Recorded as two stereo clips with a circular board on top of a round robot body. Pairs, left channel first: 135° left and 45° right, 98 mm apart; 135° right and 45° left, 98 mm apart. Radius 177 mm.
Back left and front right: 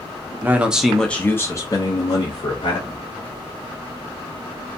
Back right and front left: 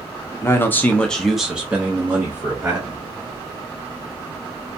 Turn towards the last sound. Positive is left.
turn(degrees=105)